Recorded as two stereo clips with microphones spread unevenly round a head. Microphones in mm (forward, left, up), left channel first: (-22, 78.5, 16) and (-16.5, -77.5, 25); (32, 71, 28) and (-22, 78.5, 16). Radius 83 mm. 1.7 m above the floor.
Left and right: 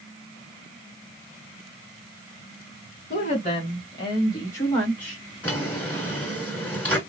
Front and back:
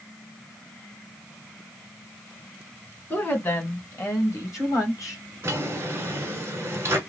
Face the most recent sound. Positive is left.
turn(degrees=170)